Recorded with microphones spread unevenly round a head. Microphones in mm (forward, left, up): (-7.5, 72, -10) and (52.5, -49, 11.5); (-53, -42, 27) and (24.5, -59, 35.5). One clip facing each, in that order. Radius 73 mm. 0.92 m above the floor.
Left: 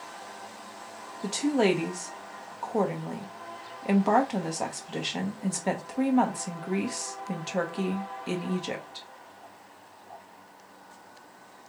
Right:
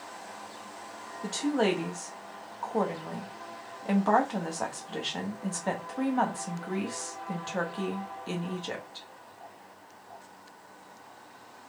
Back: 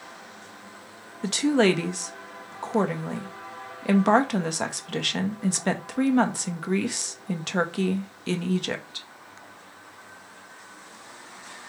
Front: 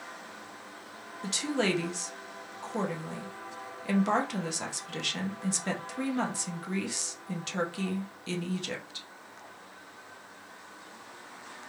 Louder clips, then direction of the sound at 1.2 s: Left 3 dB, back 9 dB; 170° right.